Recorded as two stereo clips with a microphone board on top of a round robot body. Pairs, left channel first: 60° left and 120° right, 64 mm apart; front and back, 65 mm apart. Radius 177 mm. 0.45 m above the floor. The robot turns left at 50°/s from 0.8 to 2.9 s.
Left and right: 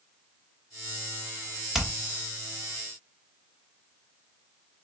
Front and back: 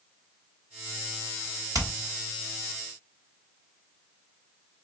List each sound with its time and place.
1.7 s hammering: 160° left, 2.0 m; by 1.9 s 150° left, 2.0 m